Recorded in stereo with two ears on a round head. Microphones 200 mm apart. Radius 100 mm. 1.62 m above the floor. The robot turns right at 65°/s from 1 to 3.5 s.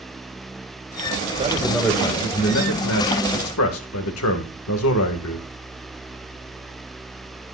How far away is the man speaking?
About 2 m.